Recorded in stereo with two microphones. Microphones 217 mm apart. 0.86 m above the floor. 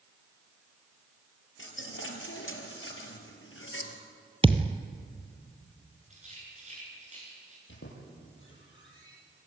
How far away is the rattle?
About 9 m.